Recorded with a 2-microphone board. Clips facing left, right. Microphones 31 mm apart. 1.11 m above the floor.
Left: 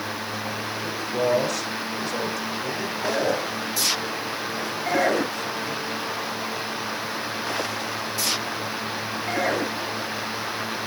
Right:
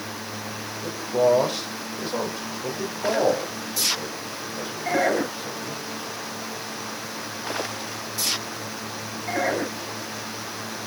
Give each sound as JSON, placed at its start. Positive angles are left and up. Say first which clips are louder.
{"t": 0.8, "sound": "a man speaking", "louder": "right 4 dB", "side_deg": -30, "distance_m": 4.0}